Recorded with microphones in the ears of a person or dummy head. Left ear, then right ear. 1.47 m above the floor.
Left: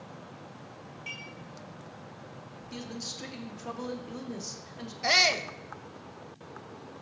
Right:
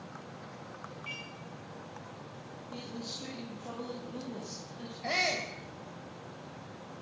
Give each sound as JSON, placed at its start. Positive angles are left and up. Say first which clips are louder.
{"t": 1.1, "sound": "dishes clattering", "louder": "left 2 dB", "side_deg": 45, "distance_m": 5.0}
{"t": 2.7, "sound": "a man speaking", "louder": "left 3 dB", "side_deg": 65, "distance_m": 2.5}
{"t": 5.0, "sound": "a shout", "louder": "left 7 dB", "side_deg": 55, "distance_m": 1.4}